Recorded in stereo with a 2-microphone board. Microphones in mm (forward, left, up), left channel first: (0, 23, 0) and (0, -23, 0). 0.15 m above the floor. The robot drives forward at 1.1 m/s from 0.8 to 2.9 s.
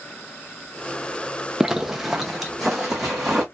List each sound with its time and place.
1.6 s a zipper: 15° right (ahead or behind), 0.9 m; by 3.4 s 5° right (ahead or behind), 2.5 m